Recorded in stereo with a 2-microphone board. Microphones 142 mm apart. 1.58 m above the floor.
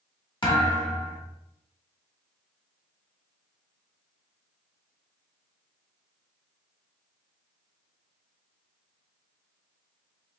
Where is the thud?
30° left (ahead or behind), 1.3 m.